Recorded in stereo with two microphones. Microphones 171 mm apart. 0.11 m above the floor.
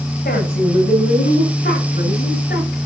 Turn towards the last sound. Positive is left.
turn(degrees=65)  # may be behind; listen again after turning